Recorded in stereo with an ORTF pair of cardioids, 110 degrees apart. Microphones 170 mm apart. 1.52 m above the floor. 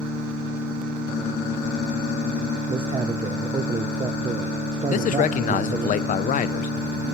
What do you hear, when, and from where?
2.7 s a man speaking: 30° right, 1.0 m
4.9 s a man speaking: 50° left, 1.0 m